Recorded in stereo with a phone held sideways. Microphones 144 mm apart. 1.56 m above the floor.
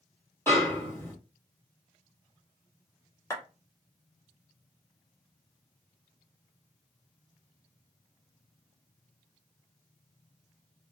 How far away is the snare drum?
About 1.7 m.